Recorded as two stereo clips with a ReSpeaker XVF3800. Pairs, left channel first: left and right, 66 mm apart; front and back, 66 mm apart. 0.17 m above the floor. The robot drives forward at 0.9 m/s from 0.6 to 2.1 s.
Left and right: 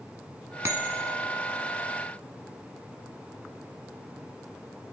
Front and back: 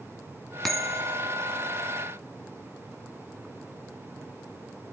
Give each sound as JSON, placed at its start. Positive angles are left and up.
{"t": 0.6, "sound": "a bell", "azimuth_deg": -80, "distance_m": 1.7}